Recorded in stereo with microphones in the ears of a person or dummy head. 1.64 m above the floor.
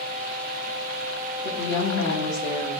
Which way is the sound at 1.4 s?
30° left (ahead or behind).